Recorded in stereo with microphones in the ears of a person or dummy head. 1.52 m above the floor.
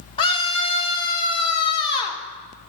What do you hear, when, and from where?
0.2 s a scream: 30° left (ahead or behind), 1.4 m